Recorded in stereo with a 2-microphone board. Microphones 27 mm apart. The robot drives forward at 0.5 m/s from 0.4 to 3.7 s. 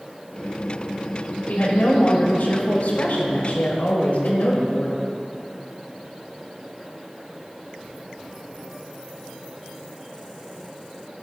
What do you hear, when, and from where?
1.5 s a woman speaking: 80° left, 4 m